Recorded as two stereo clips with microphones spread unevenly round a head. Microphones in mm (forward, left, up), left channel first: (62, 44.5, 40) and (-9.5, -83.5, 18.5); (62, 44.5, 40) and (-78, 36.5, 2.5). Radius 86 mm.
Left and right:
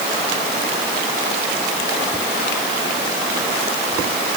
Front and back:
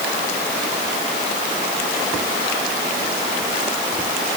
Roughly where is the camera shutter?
I don't hear a camera shutter.